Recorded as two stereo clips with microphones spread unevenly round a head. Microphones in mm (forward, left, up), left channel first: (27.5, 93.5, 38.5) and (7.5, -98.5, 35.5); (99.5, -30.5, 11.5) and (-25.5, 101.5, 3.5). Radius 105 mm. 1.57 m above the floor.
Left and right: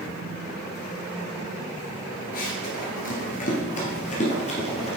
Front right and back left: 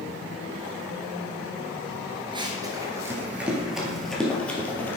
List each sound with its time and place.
2.3 s running footsteps: 80° left, 1.9 m; by 5.0 s 30° left, 3 m